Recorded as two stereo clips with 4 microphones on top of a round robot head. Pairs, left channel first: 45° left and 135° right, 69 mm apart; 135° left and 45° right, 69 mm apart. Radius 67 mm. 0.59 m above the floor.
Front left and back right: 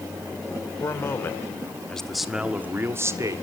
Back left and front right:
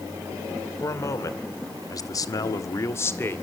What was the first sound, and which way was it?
A man speaking, 90° left.